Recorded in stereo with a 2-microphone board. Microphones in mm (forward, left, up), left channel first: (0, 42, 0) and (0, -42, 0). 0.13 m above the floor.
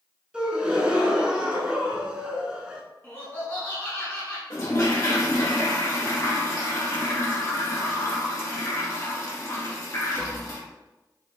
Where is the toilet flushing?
45° left (ahead or behind), 1.6 m.